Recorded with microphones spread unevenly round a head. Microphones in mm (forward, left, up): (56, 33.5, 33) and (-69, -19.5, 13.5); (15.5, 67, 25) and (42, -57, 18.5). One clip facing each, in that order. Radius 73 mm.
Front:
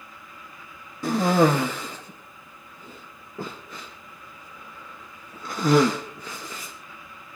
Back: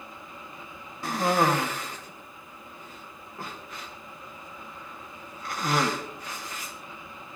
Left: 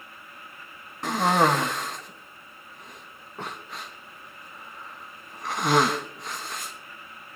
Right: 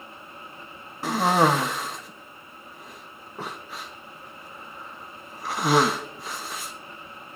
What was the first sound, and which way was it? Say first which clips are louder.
A cough: front 5 dB, right 1 dB; 10° left.